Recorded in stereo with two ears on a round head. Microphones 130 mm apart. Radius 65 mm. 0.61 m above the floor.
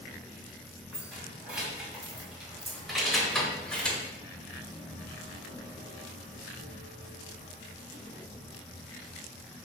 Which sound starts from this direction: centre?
Keys jangling, at 0.9 s.